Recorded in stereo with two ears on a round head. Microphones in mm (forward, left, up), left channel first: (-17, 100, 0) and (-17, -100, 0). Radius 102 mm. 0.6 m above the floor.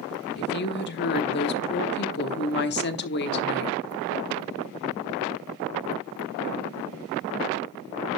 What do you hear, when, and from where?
0.4 s a woman speaking: 50° left (ahead or behind), 1.1 m